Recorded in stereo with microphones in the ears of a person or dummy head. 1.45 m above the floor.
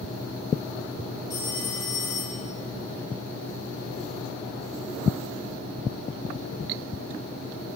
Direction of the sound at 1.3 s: 20° left (ahead or behind).